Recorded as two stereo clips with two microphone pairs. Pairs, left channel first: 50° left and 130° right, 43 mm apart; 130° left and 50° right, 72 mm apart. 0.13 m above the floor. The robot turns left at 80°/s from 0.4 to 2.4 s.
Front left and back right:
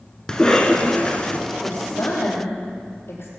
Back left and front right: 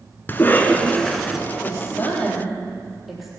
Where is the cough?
105° left, 1.4 m; by 1.4 s 25° left, 1.4 m.